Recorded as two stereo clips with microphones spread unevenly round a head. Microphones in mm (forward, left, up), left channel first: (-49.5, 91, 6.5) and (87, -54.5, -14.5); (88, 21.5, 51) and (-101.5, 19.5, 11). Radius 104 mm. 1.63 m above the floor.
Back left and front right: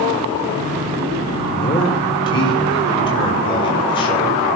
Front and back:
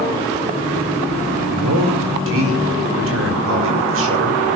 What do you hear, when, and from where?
1.5 s a man speaking: 160° right, 4.5 m